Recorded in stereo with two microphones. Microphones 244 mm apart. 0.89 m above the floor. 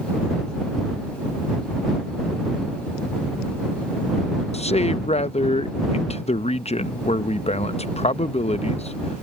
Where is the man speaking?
25° left (ahead or behind).